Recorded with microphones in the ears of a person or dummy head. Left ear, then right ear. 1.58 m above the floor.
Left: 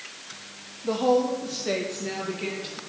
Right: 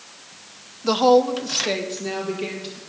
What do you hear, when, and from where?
0.8 s a woman speaking: 65° right (ahead or behind), 0.9 m; by 2.8 s 5° right (ahead or behind), 2.5 m